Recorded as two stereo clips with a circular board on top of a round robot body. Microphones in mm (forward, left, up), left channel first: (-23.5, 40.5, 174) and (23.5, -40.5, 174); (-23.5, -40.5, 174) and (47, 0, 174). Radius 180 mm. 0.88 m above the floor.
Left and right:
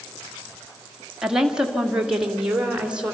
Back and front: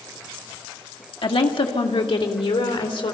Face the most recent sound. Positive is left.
turn(degrees=-140)